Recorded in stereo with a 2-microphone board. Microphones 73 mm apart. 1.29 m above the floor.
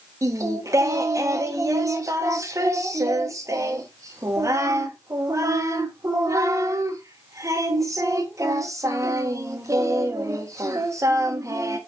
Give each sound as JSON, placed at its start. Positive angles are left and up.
{"t": 0.2, "sound": "singing", "side_deg": -45, "distance_m": 0.8}